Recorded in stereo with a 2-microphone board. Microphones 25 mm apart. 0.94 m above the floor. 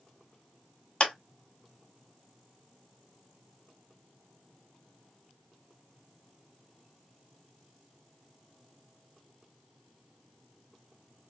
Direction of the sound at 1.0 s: 40° left (ahead or behind).